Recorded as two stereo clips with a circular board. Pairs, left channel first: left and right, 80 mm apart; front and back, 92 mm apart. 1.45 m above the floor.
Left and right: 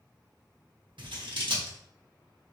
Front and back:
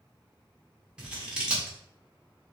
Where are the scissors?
100° right, 1.3 m.